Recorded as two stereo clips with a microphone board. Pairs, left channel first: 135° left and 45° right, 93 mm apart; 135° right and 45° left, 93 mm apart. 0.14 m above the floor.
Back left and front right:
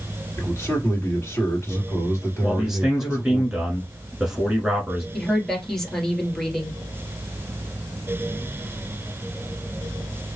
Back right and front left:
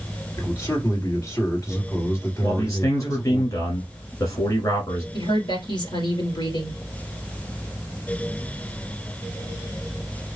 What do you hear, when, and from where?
0.4 s a man speaking: 175° right, 2.5 m
2.4 s a man speaking: 125° right, 1.5 m
5.1 s a woman speaking: 140° right, 2 m